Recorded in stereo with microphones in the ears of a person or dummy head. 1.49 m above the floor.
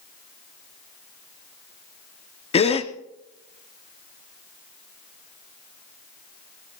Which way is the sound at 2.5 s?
25° left (ahead or behind).